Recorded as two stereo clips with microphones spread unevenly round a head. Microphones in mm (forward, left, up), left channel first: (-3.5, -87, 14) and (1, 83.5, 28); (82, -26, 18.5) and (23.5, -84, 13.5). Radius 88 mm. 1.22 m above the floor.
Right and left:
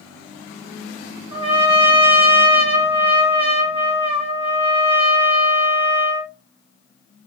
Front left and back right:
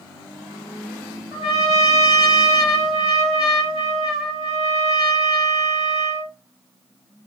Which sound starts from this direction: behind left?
A trumpet, at 1.3 s.